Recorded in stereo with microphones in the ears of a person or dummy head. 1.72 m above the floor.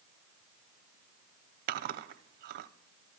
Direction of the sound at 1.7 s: 55° right (ahead or behind).